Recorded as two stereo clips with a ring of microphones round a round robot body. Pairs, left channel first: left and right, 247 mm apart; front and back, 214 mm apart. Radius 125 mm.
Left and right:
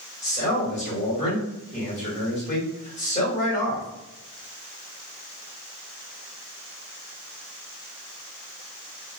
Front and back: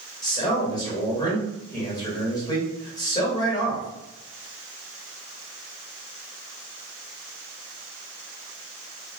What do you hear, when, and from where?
0.2 s a man speaking: 55° left, 1.3 m